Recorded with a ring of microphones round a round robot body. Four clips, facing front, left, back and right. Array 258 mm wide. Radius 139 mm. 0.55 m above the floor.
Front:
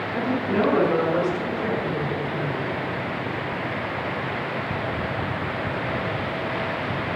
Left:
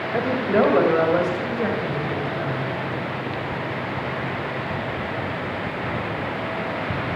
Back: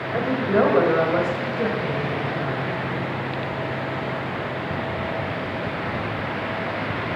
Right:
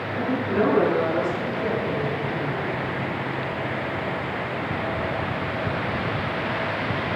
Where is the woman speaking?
125° left, 3 m; by 2.7 s 140° left, 4.5 m.